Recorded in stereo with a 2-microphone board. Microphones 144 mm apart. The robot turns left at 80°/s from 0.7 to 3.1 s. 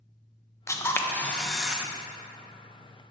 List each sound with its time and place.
0.7 s a camera shutter: 20° left (ahead or behind), 0.6 m; by 1.9 s 10° right (ahead or behind), 0.6 m